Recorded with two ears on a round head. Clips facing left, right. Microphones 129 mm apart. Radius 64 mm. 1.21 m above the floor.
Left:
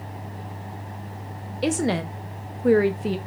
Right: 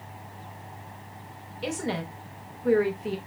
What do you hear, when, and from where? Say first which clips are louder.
1.6 s a woman speaking: left 7 dB; 55° left (ahead or behind), 0.5 m